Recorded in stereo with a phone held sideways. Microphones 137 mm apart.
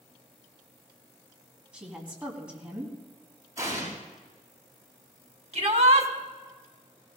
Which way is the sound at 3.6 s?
25° right (ahead or behind).